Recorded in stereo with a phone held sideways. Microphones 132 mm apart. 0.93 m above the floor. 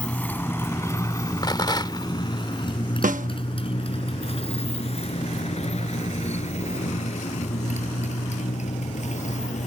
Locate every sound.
0.0 s a motorcycle: 10° left (ahead or behind); by 9.7 s 65° left (ahead or behind)
1.4 s a rattle: 35° left (ahead or behind)
3.0 s a snare drum: 80° right